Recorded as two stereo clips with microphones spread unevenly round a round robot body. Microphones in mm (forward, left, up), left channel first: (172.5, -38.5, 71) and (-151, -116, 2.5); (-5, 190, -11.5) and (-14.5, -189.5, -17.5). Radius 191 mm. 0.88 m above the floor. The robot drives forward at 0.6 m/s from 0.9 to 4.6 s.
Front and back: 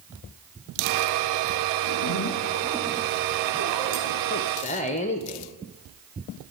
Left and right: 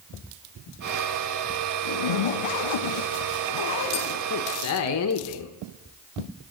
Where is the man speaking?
65° left, 0.7 m; by 5.5 s 90° left, 0.7 m.